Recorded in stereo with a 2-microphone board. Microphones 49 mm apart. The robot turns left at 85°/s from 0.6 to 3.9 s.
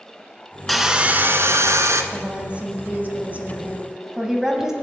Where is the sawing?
5° left, 0.7 m; by 2.0 s 110° right, 0.7 m.